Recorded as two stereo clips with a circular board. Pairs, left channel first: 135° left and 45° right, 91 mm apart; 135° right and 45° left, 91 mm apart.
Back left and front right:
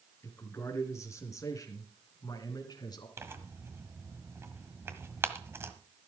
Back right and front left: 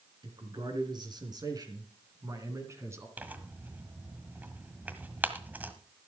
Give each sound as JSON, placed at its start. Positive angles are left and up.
{"t": 0.2, "sound": "a man speaking", "azimuth_deg": 75, "distance_m": 3.5}
{"t": 3.2, "sound": "tearing paper", "azimuth_deg": -10, "distance_m": 1.4}